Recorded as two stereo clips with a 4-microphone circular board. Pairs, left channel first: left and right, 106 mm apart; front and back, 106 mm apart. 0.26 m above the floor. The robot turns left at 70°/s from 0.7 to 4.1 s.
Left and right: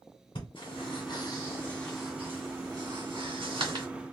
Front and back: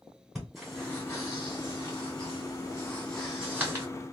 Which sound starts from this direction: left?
Breathing, at 0.3 s.